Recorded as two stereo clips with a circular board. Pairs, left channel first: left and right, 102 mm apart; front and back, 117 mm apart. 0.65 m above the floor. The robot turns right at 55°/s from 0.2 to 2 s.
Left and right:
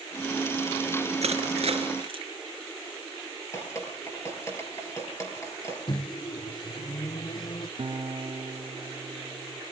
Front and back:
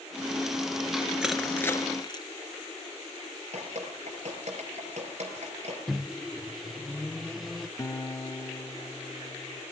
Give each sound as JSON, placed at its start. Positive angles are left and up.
{"t": 1.2, "sound": "crushing", "azimuth_deg": -95, "distance_m": 2.5}
{"t": 3.5, "sound": "dripping", "azimuth_deg": 155, "distance_m": 5.5}
{"t": 5.9, "sound": "a microwave", "azimuth_deg": 90, "distance_m": 0.5}
{"t": 7.8, "sound": "a guitar", "azimuth_deg": -60, "distance_m": 1.8}